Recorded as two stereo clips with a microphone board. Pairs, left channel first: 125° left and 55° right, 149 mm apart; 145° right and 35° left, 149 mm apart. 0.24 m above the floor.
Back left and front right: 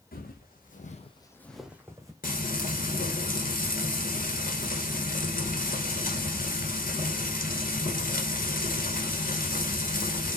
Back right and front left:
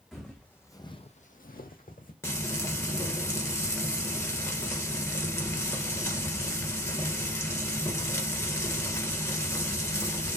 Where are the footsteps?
125° left, 1.2 m; by 2.1 s 120° right, 1.1 m.